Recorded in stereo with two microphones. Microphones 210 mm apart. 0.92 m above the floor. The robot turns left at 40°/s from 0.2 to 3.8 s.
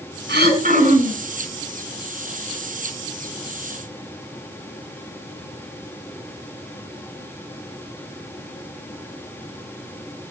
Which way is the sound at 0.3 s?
125° right.